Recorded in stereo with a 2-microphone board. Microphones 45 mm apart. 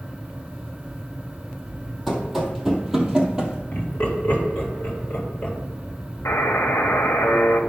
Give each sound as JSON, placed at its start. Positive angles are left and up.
{"t": 2.1, "sound": "running footsteps", "side_deg": 0, "distance_m": 2.0}
{"t": 3.7, "sound": "laughter", "side_deg": 35, "distance_m": 3.0}
{"t": 6.2, "sound": "a buzzer", "side_deg": 75, "distance_m": 1.2}